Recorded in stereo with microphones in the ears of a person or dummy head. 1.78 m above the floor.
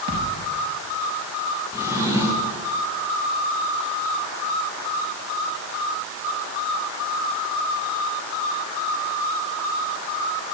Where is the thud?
55° right (ahead or behind), 5 m.